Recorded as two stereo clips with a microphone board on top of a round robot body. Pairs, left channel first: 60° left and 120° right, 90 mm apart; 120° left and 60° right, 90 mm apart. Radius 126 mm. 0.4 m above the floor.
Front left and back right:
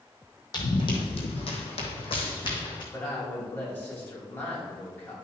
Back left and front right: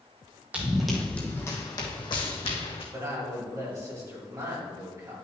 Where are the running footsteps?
15° left, 1.3 m; by 2.8 s 100° left, 1.9 m.